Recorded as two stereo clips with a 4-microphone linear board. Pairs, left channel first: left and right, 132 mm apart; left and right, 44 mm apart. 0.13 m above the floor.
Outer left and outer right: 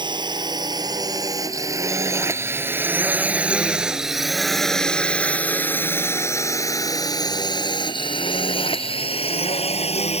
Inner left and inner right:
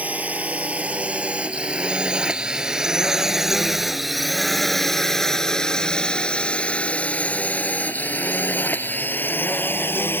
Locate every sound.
0.0 s a drone: 35° right (ahead or behind); by 10.2 s 55° left (ahead or behind)